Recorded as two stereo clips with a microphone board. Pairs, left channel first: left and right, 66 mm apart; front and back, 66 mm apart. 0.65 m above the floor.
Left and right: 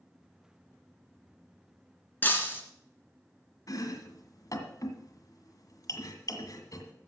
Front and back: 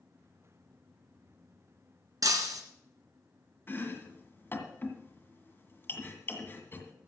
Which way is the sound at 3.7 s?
55° left.